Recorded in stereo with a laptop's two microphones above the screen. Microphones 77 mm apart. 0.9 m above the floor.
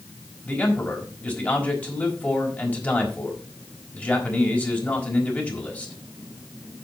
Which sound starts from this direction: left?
A man speaking, at 0.5 s.